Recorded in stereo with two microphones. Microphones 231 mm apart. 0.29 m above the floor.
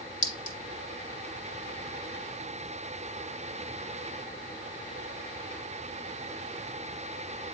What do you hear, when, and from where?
0.2 s a clink: 70° left (ahead or behind), 1.4 m